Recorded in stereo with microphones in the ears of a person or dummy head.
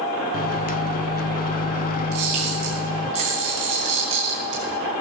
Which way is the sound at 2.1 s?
45° right (ahead or behind).